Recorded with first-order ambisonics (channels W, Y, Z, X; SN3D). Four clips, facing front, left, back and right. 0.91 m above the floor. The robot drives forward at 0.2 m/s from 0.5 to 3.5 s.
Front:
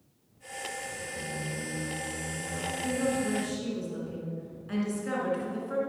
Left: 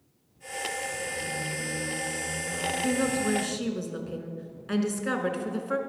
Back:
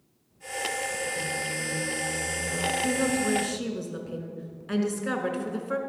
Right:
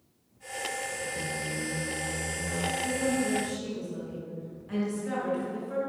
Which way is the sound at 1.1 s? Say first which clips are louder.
Left 1 dB, back 5 dB; 85° right.